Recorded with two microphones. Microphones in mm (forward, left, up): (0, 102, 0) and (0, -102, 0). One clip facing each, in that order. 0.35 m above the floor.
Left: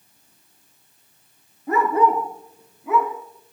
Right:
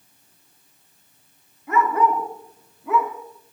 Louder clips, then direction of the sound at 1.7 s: Left 2 dB; 35° left (ahead or behind).